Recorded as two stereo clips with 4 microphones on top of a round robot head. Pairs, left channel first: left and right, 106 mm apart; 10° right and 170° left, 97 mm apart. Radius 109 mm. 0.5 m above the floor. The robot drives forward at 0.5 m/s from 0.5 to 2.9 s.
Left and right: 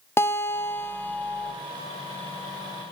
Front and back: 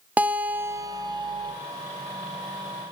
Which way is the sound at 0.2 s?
120° left.